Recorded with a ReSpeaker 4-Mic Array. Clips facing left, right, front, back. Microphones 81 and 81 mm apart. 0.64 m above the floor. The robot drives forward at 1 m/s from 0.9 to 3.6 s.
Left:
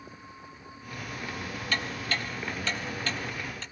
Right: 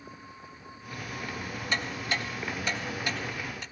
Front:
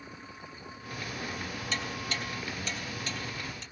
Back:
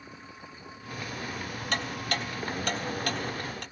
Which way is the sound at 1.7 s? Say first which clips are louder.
Right 1 dB, back 5 dB; 160° right.